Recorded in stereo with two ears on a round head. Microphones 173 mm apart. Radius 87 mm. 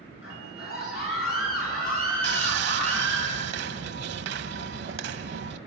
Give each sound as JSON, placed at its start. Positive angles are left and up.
{"t": 0.2, "sound": "a scream", "side_deg": 55, "distance_m": 9.0}
{"t": 2.2, "sound": "sawing", "side_deg": -60, "distance_m": 1.1}